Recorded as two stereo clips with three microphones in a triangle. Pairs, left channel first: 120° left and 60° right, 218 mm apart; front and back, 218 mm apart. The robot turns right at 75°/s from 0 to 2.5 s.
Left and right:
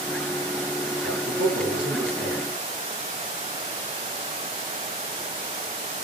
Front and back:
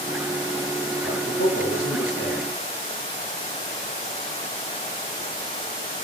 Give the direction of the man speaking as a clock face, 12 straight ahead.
2 o'clock.